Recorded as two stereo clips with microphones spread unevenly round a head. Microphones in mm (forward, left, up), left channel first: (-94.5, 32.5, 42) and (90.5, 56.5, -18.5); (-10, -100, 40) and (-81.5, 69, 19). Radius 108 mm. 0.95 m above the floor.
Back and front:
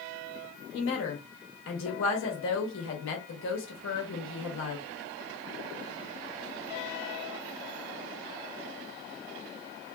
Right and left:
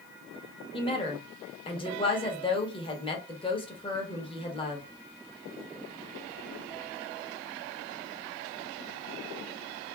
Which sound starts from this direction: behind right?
A woman speaking, at 0.7 s.